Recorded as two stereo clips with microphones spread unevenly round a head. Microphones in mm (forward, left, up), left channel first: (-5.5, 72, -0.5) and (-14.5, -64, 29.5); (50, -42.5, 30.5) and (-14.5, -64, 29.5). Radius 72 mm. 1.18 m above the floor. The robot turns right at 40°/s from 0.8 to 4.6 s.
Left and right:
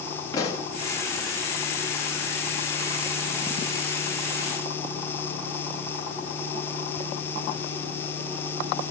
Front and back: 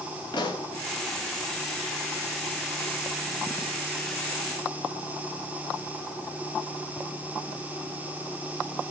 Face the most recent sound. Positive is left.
turn(degrees=175)